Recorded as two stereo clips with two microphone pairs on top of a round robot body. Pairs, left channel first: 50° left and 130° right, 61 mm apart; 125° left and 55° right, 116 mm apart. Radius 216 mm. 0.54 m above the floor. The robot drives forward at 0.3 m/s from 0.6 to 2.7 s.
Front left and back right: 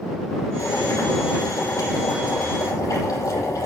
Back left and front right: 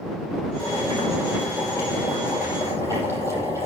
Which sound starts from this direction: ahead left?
Boiling, at 0.6 s.